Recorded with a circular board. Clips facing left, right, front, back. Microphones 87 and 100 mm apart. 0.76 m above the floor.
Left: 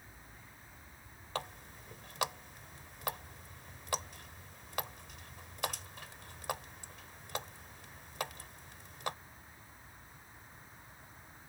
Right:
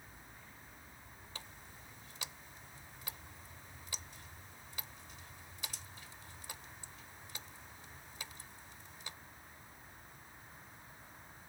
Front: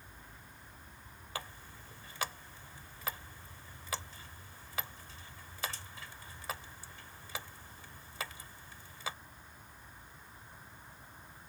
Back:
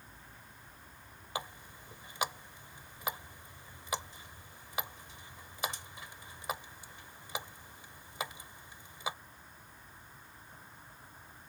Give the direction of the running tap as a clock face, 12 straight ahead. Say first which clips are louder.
Left 14 dB, back 4 dB; 8 o'clock.